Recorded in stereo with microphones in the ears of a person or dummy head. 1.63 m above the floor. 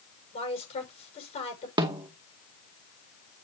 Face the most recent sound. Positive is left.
turn(degrees=-25)  # may be behind; listen again after turning